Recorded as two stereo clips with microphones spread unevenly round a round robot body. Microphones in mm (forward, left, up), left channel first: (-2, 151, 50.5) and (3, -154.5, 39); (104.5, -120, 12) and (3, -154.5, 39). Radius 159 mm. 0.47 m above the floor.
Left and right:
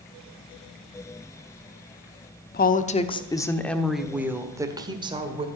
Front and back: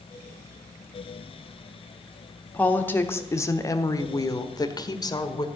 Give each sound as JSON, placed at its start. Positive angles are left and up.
{"t": 2.5, "sound": "a woman speaking", "azimuth_deg": 55, "distance_m": 1.0}